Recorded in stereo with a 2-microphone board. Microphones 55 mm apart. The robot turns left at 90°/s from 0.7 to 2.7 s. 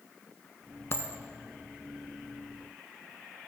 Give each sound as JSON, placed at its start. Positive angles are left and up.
{"t": 0.9, "sound": "a dropped coin", "side_deg": 55, "distance_m": 0.6}